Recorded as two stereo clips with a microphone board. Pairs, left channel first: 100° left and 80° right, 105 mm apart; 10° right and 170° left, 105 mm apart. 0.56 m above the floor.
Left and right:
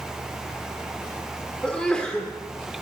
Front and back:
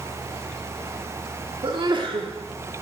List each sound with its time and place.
1.6 s a sneeze: straight behind, 1.3 m